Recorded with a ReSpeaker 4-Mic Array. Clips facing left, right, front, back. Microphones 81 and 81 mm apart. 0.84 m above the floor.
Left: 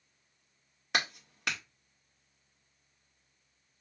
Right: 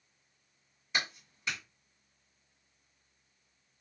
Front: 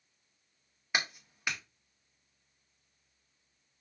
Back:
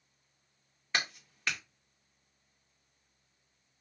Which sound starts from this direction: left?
A clap, at 0.9 s.